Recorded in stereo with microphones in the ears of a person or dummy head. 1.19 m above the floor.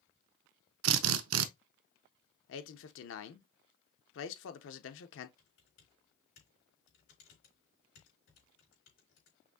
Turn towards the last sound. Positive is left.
turn(degrees=70)  # may be behind; listen again after turning